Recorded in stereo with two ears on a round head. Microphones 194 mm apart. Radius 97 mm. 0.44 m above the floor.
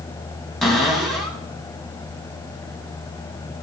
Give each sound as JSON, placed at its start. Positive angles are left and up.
{"t": 0.6, "sound": "a cupboard door", "side_deg": 0, "distance_m": 3.0}